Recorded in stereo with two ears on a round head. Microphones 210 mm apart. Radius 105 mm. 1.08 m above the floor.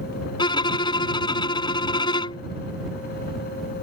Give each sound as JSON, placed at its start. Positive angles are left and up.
{"t": 0.4, "sound": "a violin", "side_deg": 20}